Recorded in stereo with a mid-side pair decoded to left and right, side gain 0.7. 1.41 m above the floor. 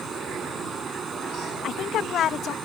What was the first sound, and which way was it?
Running water, 30° right.